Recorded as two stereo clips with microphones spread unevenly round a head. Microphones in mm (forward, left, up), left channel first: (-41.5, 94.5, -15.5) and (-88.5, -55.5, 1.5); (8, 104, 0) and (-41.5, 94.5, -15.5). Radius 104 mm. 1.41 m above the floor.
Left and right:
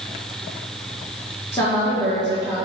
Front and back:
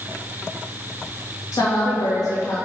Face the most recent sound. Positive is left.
turn(degrees=-5)